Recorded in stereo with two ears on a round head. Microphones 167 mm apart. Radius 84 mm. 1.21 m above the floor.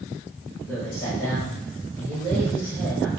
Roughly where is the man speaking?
Centre.